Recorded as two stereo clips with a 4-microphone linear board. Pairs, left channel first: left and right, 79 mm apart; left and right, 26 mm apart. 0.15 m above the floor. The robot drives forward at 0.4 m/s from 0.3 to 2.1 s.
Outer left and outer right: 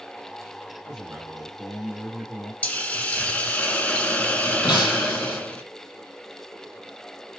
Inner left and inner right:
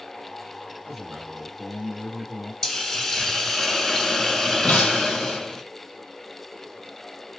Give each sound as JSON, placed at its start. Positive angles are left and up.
{"t": 0.8, "sound": "a man speaking", "side_deg": -10, "distance_m": 2.0}
{"t": 2.6, "sound": "a hiss", "side_deg": 15, "distance_m": 0.8}
{"t": 4.6, "sound": "breaking glass", "side_deg": 75, "distance_m": 1.7}